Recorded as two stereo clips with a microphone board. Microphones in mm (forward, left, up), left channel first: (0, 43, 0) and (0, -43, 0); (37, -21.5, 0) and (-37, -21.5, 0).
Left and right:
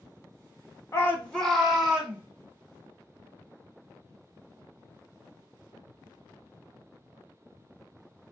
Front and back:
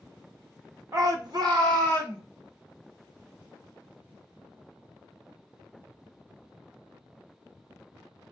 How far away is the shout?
About 0.9 m.